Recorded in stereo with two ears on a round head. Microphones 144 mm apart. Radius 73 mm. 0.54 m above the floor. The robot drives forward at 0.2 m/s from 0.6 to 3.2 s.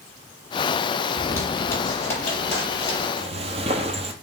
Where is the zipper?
15° left (ahead or behind), 4 m.